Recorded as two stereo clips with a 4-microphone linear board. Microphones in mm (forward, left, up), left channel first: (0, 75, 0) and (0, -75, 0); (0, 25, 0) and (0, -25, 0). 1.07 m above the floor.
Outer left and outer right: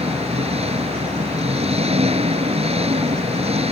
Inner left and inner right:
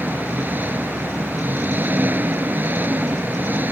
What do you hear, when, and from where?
0.0 s an engine running: 40° right (ahead or behind)